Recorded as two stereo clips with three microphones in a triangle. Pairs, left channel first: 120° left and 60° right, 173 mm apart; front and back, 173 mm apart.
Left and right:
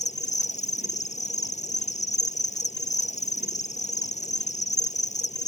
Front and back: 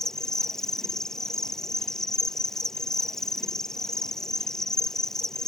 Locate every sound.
0.0 s an insect: 85° left